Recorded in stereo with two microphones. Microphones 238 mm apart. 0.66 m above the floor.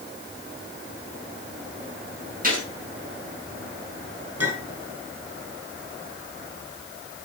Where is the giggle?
I don't hear a giggle.